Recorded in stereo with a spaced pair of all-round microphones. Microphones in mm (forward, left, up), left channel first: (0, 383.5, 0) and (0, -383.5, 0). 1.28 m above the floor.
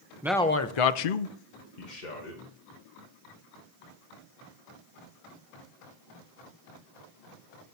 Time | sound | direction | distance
0.2 | a man speaking | 5° right (ahead or behind) | 0.8 m